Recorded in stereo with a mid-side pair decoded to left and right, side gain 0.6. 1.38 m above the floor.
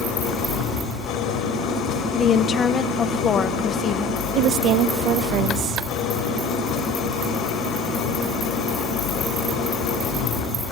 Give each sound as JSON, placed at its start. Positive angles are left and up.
{"t": 0.0, "sound": "an engine running", "azimuth_deg": 55, "distance_m": 3.5}
{"t": 2.1, "sound": "a woman speaking", "azimuth_deg": 35, "distance_m": 1.3}
{"t": 4.3, "sound": "a woman speaking", "azimuth_deg": -60, "distance_m": 1.0}